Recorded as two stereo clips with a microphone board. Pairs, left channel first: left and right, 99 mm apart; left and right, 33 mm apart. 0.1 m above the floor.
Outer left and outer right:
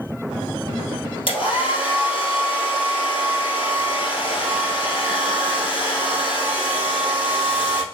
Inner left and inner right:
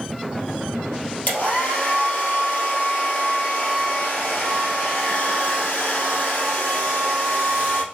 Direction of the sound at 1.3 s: 60° left (ahead or behind).